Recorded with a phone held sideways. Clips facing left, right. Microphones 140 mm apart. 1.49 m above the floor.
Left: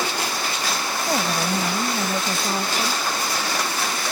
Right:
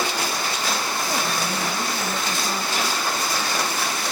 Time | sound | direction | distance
1.1 | a woman speaking | 35° left (ahead or behind) | ?